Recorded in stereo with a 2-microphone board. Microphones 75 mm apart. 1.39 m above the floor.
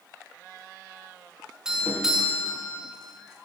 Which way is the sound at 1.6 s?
10° right (ahead or behind).